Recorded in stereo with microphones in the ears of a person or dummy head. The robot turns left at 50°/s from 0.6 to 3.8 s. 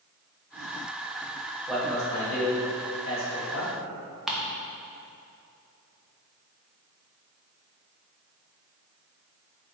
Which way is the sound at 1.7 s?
Centre (ahead or behind).